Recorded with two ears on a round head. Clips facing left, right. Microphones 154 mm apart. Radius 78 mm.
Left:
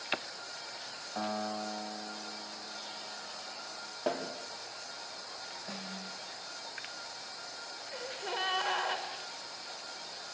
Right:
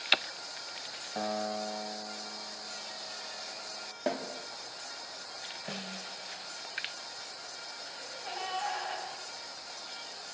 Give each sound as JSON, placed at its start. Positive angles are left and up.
{"t": 1.1, "sound": "a piano", "side_deg": -25, "distance_m": 1.2}
{"t": 4.1, "sound": "a snare drum", "side_deg": -20, "distance_m": 3.0}
{"t": 5.7, "sound": "a snare drum", "side_deg": -40, "distance_m": 1.4}
{"t": 7.9, "sound": "a gasp", "side_deg": 60, "distance_m": 2.5}